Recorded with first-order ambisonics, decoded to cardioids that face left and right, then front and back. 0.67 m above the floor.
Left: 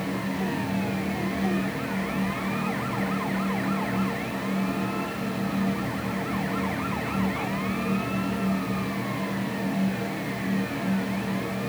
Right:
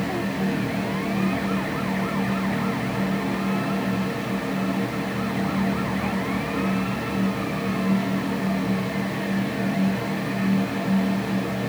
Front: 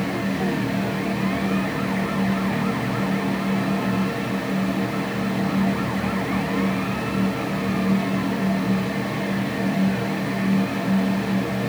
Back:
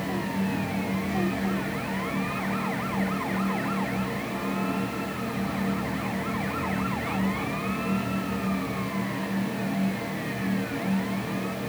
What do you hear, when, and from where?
Only background noise.